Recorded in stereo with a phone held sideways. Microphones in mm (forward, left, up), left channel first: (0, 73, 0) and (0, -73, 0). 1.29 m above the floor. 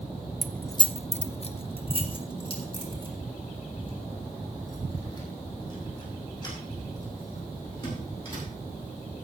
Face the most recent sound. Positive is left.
turn(degrees=30)  # may be behind; listen again after turning